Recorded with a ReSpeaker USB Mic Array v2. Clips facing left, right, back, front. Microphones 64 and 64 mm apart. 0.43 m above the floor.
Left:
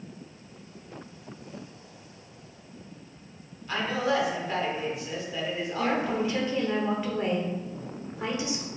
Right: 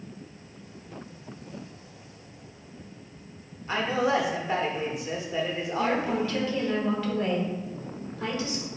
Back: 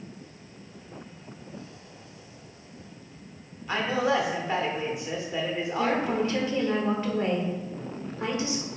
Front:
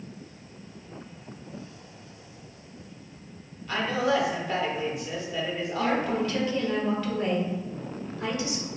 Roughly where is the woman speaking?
Behind left.